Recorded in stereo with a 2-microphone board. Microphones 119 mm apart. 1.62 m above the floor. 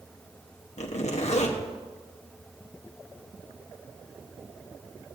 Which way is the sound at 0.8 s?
70° left (ahead or behind).